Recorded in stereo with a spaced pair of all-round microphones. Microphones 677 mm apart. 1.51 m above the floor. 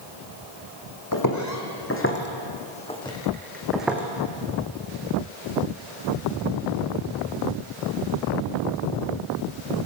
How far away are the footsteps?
About 3 m.